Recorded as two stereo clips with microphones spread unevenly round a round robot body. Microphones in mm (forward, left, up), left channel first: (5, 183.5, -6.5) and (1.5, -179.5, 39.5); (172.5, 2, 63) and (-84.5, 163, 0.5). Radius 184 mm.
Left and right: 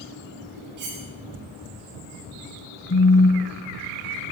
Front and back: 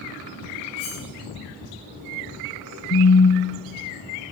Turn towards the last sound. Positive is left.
turn(degrees=25)